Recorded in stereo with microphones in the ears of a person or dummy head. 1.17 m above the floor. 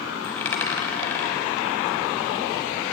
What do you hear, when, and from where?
0.2 s a dropped coin: 15° left (ahead or behind), 1.3 m